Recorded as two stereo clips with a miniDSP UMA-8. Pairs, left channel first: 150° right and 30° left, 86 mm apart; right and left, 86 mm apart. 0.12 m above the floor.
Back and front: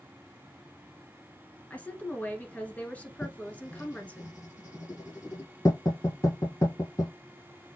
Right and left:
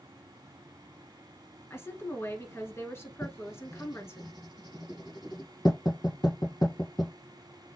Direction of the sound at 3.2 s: 110° right.